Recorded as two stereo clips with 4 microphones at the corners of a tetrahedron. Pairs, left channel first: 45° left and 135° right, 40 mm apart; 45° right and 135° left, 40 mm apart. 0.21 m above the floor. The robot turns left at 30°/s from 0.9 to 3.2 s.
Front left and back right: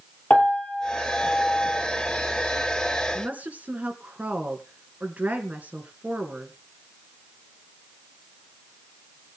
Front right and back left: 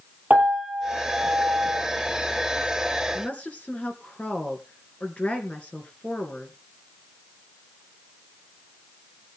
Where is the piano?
90° left, 4 m; by 1.8 s 65° left, 4 m.